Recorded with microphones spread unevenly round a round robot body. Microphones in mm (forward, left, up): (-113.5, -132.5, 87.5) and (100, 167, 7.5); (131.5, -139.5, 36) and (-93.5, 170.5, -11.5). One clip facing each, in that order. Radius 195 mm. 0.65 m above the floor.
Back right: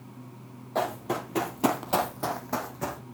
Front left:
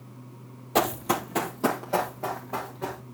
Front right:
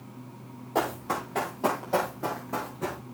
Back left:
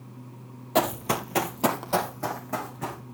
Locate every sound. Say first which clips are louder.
0.8 s running footsteps: front left 4 dB, back left 3 dB; 90° left, 1.1 m; by 3.0 s 155° right, 2.5 m